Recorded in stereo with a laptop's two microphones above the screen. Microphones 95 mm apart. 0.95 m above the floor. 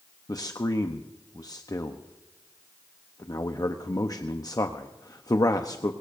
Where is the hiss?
No hiss in this recording.